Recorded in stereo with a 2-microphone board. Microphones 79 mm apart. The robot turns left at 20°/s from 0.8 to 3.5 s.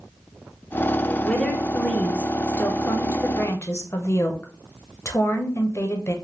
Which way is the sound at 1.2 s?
170° left.